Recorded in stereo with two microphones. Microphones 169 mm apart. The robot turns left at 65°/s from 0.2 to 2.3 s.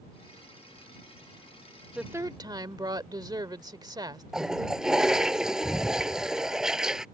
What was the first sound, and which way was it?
A woman speaking, 5° right (ahead or behind).